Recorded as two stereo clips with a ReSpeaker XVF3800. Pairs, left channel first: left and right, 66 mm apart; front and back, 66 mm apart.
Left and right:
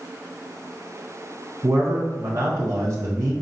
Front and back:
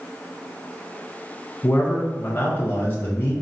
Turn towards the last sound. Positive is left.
turn(degrees=-55)